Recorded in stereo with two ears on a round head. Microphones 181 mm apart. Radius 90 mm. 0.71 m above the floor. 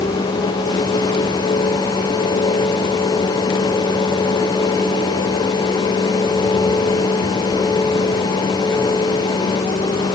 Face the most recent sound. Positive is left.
No sound to turn to.